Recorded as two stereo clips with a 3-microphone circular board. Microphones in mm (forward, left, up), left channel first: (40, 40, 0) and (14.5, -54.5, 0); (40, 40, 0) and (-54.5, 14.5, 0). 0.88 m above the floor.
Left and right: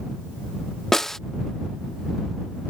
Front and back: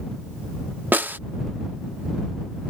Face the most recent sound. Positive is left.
turn(degrees=155)